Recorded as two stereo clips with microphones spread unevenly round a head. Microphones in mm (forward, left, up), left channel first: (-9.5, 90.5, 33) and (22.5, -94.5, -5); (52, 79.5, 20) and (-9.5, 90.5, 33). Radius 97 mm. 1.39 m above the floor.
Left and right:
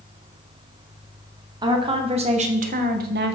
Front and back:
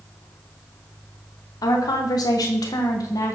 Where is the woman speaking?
15° right, 1.8 m; by 3.4 s 55° right, 1.3 m.